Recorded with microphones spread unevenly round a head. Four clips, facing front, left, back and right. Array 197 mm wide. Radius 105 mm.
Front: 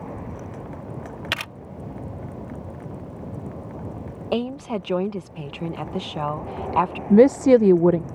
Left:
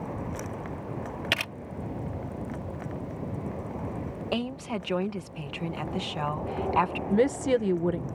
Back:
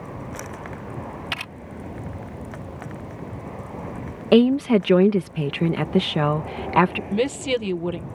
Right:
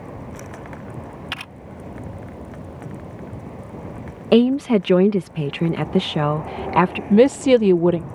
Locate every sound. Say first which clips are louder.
1.3 s a camera shutter: left 2 dB, front 2 dB; 60° left
4.3 s a woman speaking: right 18 dB, back 10 dB; 125° right
7.1 s a woman speaking: right 11 dB, front 10 dB; 45° right